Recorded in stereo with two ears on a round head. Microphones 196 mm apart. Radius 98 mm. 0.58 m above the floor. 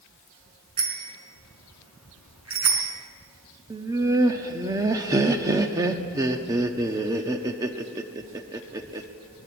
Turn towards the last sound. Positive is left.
turn(degrees=-15)  # may be behind; listen again after turning